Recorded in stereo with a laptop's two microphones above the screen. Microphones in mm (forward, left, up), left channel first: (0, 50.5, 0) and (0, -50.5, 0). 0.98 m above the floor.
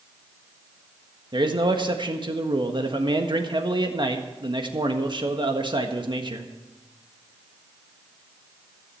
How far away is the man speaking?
About 1.5 m.